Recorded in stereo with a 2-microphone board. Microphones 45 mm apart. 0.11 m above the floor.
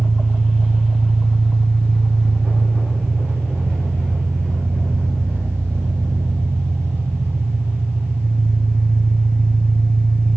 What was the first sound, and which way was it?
An engine running, 70° right (ahead or behind).